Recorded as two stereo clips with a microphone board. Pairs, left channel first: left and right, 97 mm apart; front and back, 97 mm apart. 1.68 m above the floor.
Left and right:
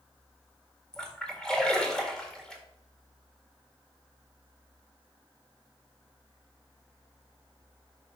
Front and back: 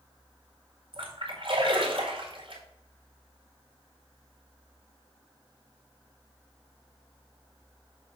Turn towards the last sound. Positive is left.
turn(degrees=170)